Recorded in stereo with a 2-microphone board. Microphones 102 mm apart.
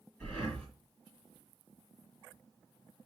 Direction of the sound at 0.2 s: 15° left (ahead or behind).